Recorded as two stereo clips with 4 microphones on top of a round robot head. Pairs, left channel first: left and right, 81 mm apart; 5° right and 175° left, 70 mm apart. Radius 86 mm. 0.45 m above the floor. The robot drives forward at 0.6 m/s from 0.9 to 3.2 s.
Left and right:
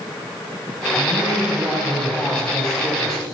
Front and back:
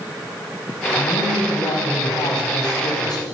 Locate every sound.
1.0 s a man speaking: 5° left, 4 m